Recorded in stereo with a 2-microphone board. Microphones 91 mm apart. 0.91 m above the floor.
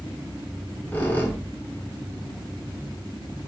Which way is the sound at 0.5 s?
15° left (ahead or behind).